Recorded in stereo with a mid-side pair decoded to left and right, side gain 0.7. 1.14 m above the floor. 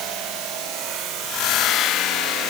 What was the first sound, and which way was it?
Only background noise.